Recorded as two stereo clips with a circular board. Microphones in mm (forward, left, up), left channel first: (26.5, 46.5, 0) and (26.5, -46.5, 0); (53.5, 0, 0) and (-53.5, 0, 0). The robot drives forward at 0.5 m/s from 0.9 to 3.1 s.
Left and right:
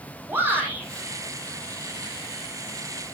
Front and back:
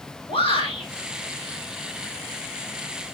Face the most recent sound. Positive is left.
turn(degrees=-30)